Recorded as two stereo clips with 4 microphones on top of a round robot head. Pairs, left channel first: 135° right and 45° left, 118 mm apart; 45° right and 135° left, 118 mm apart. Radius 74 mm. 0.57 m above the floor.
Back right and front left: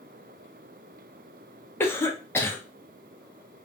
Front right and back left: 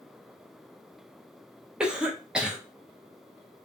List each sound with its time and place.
1.8 s a cough: 155° right, 0.7 m